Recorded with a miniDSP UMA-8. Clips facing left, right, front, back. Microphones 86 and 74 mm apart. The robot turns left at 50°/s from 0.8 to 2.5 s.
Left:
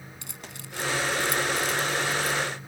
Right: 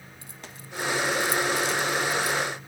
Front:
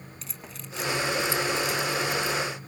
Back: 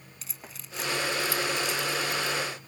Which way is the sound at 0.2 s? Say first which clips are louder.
Even, front 2 dB; 90° left.